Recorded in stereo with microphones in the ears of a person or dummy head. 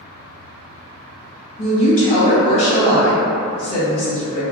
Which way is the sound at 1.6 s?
40° left (ahead or behind).